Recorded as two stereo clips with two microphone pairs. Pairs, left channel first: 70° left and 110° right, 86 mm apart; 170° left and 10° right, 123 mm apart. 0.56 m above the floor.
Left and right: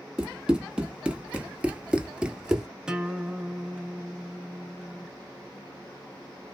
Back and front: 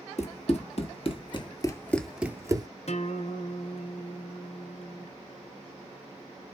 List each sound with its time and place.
0.2 s running footsteps: 170° left, 1.1 m; by 2.7 s 25° right, 0.6 m
2.9 s a guitar: 170° left, 0.6 m